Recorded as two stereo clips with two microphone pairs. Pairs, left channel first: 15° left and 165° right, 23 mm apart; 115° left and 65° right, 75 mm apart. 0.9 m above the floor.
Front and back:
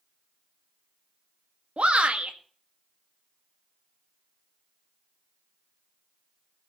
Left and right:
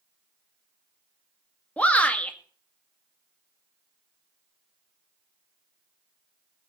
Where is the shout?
170° right, 1.8 m.